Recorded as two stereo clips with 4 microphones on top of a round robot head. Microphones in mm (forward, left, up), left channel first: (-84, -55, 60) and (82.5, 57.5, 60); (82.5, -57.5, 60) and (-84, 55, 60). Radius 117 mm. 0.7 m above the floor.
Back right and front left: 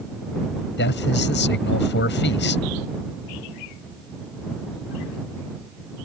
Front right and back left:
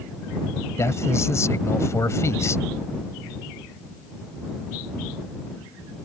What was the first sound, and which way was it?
A man speaking, 110° right.